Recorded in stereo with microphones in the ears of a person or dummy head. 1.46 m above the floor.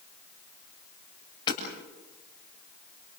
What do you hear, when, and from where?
1.5 s hammering: 30° left (ahead or behind), 7.5 m